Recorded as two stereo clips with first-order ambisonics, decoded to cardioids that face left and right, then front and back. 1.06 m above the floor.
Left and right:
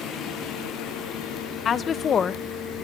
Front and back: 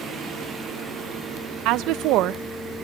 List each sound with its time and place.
1.6 s a woman speaking: 150° left, 0.6 m